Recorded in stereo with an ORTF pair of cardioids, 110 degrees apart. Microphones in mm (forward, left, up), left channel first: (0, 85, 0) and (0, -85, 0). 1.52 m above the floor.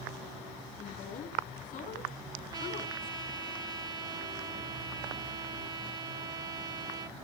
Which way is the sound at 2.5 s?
25° right.